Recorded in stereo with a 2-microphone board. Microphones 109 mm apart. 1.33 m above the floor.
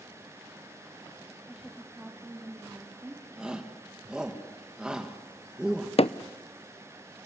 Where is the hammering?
65° left (ahead or behind), 0.6 m.